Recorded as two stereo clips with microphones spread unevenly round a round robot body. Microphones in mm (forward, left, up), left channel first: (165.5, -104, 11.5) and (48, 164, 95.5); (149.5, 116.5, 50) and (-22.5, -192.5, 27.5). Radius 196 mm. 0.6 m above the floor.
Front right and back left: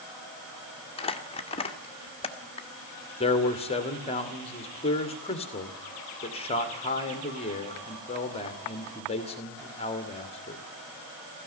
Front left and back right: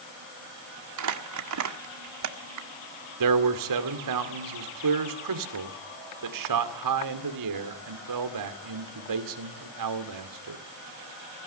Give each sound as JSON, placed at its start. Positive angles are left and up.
{"t": 1.0, "sound": "crumpling", "azimuth_deg": -120, "distance_m": 1.7}
{"t": 3.2, "sound": "a man speaking", "azimuth_deg": -125, "distance_m": 2.0}